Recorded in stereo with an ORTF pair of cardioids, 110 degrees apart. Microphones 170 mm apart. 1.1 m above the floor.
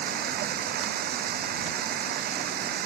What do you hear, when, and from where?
0.0 s running water: 65° right